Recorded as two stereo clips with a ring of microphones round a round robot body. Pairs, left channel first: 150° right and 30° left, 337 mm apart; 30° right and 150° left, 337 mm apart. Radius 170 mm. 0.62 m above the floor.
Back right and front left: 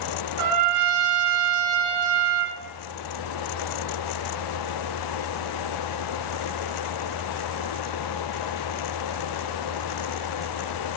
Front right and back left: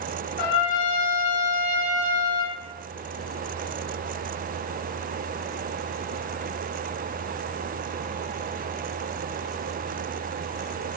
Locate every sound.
0.4 s a trumpet: 10° right, 1.5 m